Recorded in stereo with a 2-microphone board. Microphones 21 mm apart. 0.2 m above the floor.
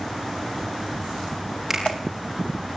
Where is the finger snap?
20° right (ahead or behind), 6.5 m.